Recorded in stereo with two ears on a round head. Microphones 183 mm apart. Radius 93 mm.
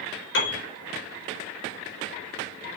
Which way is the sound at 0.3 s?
60° left (ahead or behind).